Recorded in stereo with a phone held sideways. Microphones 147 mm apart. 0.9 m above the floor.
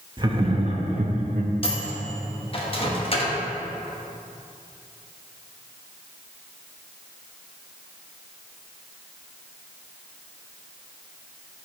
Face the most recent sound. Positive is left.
turn(degrees=40)  # may be behind; listen again after turning